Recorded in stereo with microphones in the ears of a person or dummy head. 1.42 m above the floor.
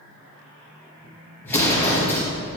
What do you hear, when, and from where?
1.4 s an explosion: 10° left (ahead or behind), 1.4 m